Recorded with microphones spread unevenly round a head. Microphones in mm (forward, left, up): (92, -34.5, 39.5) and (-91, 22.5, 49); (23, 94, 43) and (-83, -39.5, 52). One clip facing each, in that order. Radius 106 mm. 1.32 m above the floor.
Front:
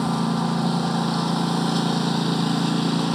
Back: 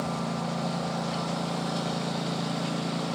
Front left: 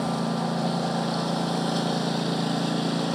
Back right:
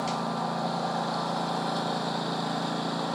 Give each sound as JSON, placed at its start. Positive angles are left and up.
{"t": 0.0, "sound": "a lawn mower", "azimuth_deg": -20}